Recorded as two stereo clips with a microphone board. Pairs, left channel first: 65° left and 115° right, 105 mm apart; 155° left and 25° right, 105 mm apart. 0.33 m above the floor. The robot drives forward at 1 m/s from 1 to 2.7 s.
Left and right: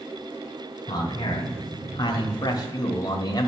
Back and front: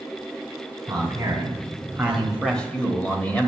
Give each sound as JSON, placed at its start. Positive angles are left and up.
{"t": 0.9, "sound": "a man speaking", "azimuth_deg": 25, "distance_m": 2.0}